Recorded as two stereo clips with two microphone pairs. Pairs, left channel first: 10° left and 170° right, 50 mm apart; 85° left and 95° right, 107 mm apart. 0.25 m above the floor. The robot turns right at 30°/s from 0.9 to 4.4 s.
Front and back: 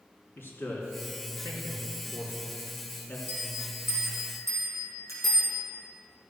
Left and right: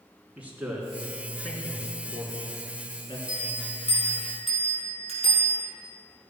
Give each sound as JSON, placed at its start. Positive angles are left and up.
{"t": 0.4, "sound": "a man speaking", "azimuth_deg": -20, "distance_m": 3.0}
{"t": 3.3, "sound": "a bell", "azimuth_deg": 140, "distance_m": 4.5}